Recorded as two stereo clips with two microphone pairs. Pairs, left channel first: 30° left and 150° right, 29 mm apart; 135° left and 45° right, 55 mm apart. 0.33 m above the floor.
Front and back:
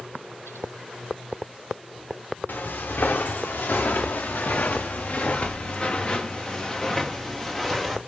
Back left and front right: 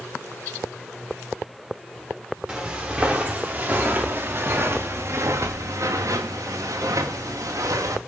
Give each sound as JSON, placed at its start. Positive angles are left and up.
{"t": 2.5, "sound": "footsteps", "azimuth_deg": 30, "distance_m": 2.5}